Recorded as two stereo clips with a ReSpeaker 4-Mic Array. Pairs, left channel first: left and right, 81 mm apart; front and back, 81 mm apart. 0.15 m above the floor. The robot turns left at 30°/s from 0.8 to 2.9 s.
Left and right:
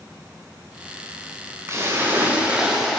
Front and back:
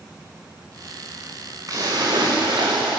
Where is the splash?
140° right, 5.5 m; by 3.0 s straight behind, 5.5 m.